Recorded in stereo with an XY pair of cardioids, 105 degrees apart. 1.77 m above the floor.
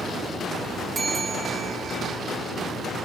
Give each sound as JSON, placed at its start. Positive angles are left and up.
{"t": 0.9, "sound": "a bell", "azimuth_deg": -45, "distance_m": 3.5}